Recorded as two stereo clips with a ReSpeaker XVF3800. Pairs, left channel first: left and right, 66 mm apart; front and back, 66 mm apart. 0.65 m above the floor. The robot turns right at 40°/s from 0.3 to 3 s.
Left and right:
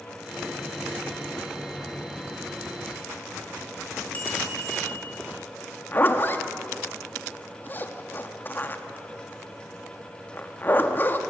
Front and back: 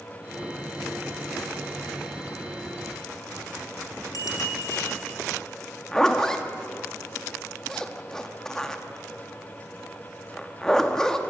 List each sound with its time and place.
4.1 s a bicycle bell: 25° left, 5 m
5.9 s a zipper: 75° left, 1.1 m